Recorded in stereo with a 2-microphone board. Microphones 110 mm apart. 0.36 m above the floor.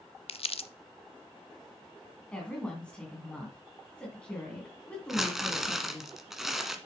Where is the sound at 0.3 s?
60° left (ahead or behind), 0.7 m.